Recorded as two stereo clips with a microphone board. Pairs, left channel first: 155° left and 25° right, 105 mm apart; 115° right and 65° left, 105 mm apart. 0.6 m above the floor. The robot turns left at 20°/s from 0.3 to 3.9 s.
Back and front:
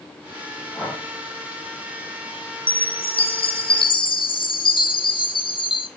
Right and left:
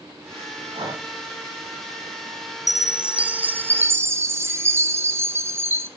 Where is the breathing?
90° left, 4.5 m; by 1.0 s 80° left, 4.5 m.